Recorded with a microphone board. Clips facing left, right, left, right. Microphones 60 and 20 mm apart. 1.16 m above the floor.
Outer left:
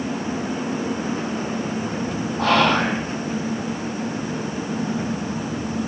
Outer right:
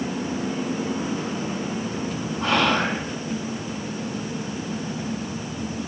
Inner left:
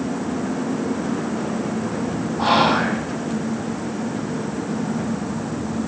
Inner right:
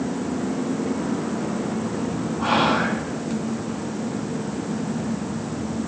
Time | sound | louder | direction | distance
2.4 | whispering | outer left 3 dB, inner left 3 dB | 80° left | 8.5 m